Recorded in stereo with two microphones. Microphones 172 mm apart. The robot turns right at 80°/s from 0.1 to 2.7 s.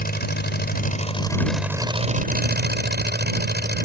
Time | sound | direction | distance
0.0 | an engine running | 65° left | ?